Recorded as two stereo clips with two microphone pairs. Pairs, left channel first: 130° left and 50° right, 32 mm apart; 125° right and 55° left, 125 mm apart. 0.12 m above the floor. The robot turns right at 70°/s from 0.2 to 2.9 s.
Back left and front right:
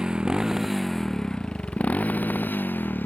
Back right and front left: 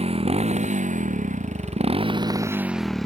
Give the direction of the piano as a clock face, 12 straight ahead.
I don't hear a piano.